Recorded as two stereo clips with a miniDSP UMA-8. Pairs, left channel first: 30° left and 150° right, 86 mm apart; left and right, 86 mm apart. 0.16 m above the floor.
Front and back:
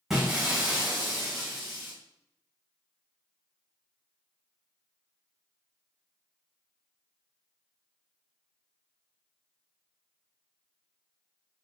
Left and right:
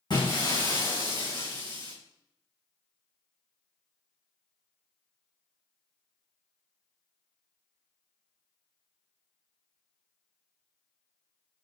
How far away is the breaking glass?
About 3.5 m.